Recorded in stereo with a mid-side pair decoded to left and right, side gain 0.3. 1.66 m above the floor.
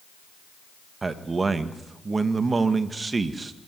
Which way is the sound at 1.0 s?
45° right.